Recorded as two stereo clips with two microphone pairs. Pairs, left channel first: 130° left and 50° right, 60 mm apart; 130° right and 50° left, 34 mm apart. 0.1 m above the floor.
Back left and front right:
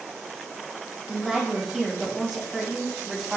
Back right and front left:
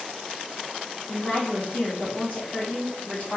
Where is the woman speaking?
135° right, 2.0 m.